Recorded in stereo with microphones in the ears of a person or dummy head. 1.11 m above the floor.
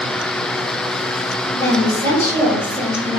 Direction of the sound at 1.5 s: 10° left (ahead or behind).